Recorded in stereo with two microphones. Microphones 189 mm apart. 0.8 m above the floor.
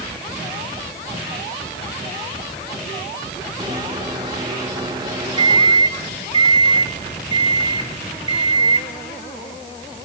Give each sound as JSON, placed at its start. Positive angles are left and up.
{"t": 3.6, "sound": "a microwave", "side_deg": -20, "distance_m": 1.0}